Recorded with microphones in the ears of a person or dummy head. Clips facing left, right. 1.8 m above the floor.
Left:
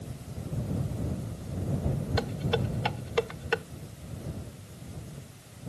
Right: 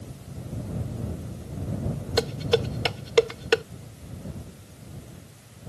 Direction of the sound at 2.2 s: 55° right (ahead or behind).